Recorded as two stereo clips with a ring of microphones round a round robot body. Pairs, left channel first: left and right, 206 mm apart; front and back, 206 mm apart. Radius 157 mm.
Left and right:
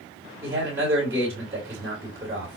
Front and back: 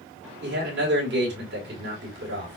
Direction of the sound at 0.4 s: 170° right.